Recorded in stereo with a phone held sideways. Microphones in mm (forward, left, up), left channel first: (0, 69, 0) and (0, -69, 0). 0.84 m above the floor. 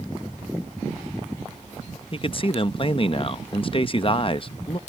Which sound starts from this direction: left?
A man speaking, at 2.1 s.